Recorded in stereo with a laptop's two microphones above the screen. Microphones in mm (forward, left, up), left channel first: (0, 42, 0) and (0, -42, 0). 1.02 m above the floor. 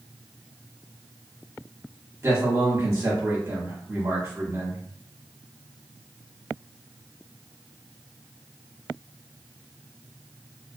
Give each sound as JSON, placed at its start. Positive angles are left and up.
{"t": 2.2, "sound": "a man speaking", "side_deg": -35, "distance_m": 1.2}